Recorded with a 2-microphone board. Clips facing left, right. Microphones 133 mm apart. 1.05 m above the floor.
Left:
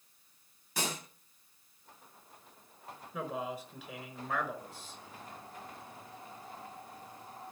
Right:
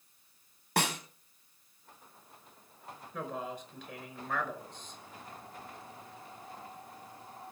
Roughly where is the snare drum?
Right.